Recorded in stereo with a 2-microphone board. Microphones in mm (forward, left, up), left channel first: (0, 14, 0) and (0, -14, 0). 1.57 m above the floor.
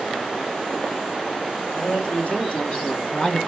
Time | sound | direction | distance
1.7 | a man speaking | 50° left (ahead or behind) | 3 m